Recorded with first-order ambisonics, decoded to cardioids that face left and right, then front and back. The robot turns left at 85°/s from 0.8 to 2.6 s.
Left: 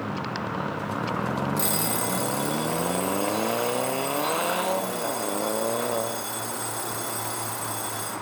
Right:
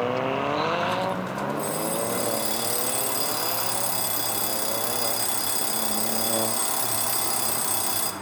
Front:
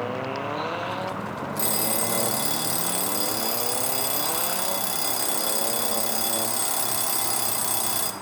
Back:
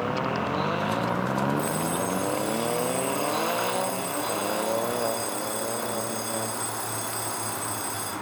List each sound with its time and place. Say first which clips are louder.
1.6 s an alarm clock: even, even; 50° left, 1.5 m; by 8.1 s 35° right, 1.5 m